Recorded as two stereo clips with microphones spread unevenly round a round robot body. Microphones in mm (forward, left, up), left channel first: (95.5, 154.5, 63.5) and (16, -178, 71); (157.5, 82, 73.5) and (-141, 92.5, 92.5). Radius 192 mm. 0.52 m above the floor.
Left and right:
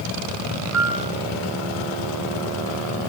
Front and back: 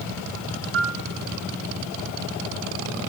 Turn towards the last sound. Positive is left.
turn(degrees=-140)